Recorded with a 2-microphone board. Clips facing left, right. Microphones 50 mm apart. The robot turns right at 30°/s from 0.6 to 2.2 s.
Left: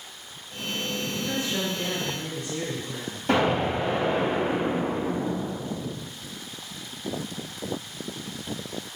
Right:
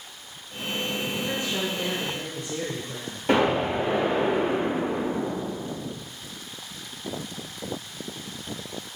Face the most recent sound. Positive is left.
turn(degrees=-30)  # may be behind; listen again after turning